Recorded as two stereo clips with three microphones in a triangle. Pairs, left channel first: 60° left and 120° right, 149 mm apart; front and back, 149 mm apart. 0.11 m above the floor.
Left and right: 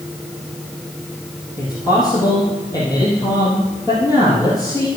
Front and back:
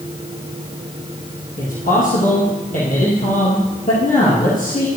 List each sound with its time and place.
1.6 s a man speaking: 5° right, 3 m